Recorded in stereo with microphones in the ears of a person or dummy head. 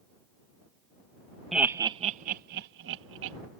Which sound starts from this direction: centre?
Laughter, at 1.5 s.